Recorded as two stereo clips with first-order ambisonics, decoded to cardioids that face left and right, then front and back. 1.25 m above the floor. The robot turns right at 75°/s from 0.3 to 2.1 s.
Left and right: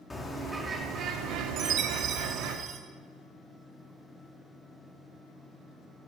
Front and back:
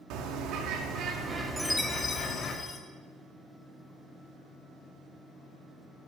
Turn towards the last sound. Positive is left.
turn(degrees=-65)